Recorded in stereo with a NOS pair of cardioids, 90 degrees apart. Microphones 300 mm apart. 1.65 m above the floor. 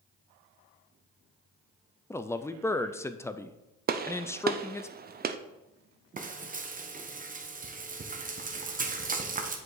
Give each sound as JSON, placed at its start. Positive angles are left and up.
{"t": 2.1, "sound": "a man speaking", "azimuth_deg": 10, "distance_m": 0.6}
{"t": 3.9, "sound": "a gunshot", "azimuth_deg": -30, "distance_m": 0.6}
{"t": 6.2, "sound": "frying", "azimuth_deg": -25, "distance_m": 1.1}